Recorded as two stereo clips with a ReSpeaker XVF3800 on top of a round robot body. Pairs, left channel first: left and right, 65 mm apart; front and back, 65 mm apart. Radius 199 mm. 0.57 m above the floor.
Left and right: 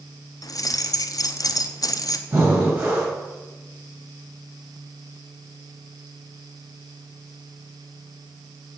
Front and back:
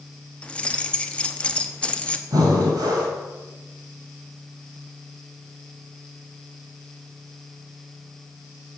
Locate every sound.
0.4 s keys jangling: 70° left, 1.0 m
2.3 s breathing: 160° right, 6 m